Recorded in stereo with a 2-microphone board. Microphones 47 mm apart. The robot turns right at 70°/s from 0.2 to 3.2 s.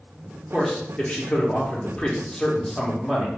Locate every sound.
0.5 s a man speaking: 5° left (ahead or behind), 1.0 m; by 3.3 s 10° right (ahead or behind), 1.0 m